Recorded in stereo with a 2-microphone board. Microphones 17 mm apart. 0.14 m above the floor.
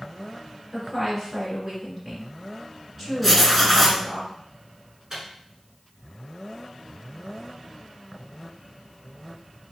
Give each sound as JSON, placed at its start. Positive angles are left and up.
{"t": 0.7, "sound": "a woman speaking", "side_deg": -15, "distance_m": 1.9}
{"t": 3.2, "sound": "writing", "side_deg": 0, "distance_m": 0.9}
{"t": 5.1, "sound": "a microwave", "side_deg": -30, "distance_m": 1.4}